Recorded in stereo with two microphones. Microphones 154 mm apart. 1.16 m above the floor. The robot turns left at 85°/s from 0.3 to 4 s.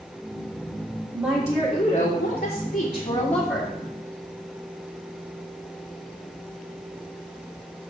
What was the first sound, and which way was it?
A woman speaking, 150° right.